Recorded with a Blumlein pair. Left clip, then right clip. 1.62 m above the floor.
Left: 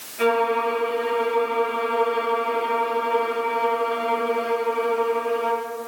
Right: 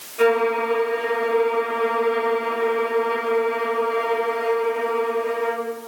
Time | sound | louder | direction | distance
0.2 | a violin | right 2 dB | 30° right | 1.4 m